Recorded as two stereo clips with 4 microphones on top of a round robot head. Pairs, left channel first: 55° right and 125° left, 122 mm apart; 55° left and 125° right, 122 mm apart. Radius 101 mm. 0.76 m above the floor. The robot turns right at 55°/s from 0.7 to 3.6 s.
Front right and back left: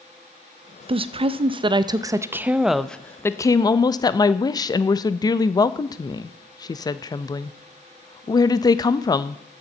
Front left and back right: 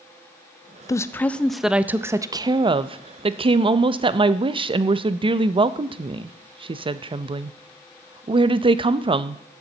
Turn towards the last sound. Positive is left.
turn(degrees=-100)